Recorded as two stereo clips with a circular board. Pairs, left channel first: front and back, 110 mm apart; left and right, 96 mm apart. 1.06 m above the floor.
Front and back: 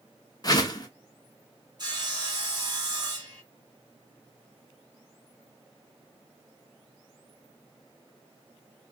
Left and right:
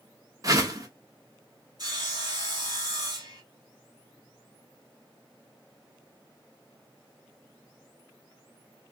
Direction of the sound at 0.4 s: 45° right.